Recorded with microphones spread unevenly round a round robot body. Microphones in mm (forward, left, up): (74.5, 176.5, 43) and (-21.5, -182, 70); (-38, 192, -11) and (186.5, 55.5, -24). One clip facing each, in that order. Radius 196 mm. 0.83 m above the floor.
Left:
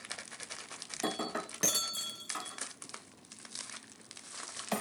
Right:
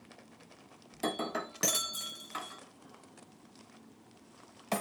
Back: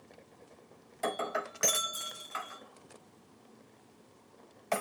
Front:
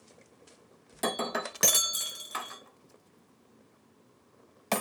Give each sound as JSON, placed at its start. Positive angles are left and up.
{"t": 0.9, "sound": "breaking glass", "azimuth_deg": -20, "distance_m": 0.7}